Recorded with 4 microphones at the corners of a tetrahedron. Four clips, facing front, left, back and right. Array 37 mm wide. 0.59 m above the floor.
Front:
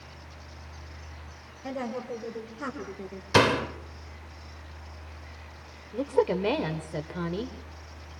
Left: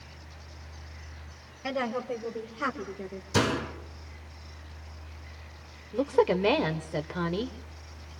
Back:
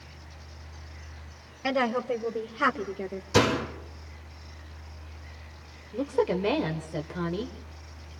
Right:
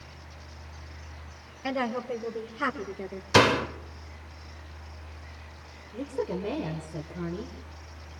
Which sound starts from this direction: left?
A woman speaking, at 5.9 s.